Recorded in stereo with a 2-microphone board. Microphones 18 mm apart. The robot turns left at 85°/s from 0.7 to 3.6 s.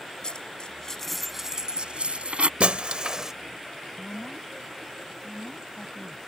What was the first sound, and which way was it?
A dropped coin, 40° left (ahead or behind).